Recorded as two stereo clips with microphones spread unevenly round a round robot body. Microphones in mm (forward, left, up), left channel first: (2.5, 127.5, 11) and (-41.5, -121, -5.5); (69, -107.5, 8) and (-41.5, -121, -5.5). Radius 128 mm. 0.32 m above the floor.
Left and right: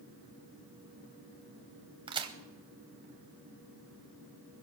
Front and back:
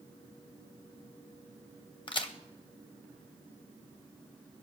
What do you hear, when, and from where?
2.1 s a crack: 35° right, 0.9 m